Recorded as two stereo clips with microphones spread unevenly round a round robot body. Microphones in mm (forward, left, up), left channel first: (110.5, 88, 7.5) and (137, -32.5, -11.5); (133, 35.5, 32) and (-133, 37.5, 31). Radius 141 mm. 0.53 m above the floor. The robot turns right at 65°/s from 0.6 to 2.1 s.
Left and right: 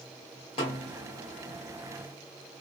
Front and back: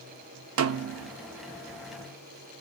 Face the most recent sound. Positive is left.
turn(degrees=-100)